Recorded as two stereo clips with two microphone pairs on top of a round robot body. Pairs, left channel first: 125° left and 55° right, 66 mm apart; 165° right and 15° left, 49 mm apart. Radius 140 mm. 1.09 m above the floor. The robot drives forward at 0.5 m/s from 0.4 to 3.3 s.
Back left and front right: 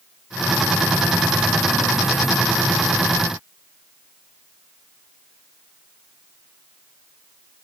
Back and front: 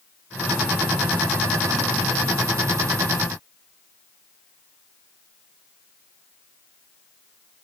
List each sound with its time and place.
Only background noise.